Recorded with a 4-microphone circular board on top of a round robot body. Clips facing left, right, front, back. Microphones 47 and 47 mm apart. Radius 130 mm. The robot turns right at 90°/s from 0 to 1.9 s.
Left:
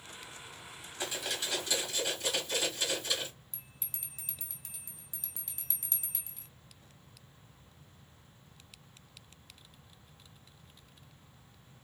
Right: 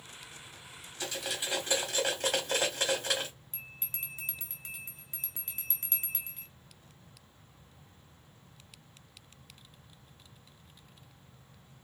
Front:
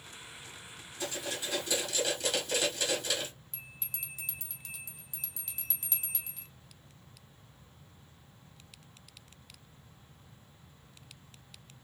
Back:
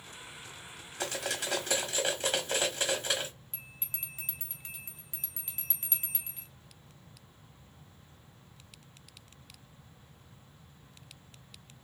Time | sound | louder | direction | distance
1.0 | cutlery clinking | even, back 2 dB | 155° left | 0.9 m
3.5 | a bell | right 9 dB, front 1 dB | 130° right | 1.0 m